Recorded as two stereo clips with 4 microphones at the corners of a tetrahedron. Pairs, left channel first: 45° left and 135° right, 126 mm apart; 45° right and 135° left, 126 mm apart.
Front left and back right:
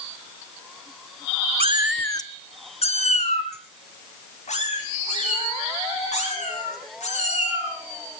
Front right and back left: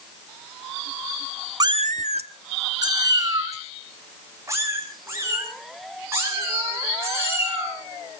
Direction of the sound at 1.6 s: 165° right.